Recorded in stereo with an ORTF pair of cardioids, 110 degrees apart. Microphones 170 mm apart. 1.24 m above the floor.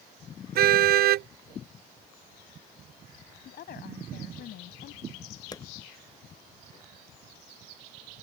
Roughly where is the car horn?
Ahead right.